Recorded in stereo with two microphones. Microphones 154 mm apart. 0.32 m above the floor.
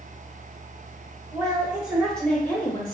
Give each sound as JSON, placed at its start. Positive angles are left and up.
{"t": 1.3, "sound": "a woman speaking", "side_deg": -25, "distance_m": 0.9}